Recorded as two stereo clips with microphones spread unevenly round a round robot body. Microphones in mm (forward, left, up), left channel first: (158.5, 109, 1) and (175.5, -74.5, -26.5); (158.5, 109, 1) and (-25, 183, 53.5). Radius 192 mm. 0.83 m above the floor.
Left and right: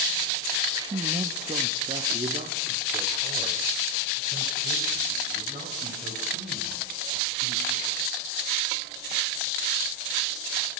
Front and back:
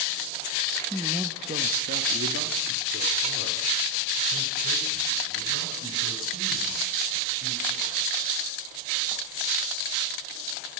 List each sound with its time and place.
0.8 s a man speaking: 55° right, 0.9 m; by 7.9 s 165° right, 8 m